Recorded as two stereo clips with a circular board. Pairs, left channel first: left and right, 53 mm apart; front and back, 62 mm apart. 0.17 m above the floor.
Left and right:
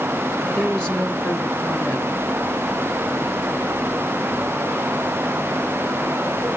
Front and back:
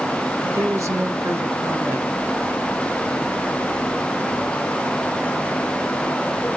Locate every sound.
0.4 s a woman speaking: 160° left, 3 m